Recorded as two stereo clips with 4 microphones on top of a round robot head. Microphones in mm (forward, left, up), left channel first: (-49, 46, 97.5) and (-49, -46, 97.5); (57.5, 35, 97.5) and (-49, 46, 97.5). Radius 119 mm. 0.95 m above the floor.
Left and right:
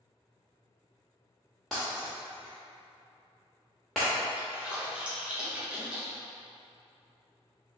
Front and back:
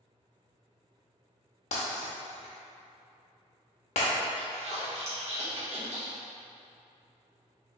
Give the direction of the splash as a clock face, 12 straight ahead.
6 o'clock.